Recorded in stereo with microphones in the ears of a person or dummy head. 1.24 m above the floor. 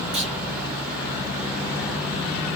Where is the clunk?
30° right (ahead or behind), 0.9 m.